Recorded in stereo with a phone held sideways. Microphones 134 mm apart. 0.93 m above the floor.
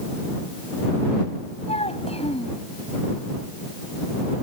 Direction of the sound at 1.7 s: 50° left (ahead or behind).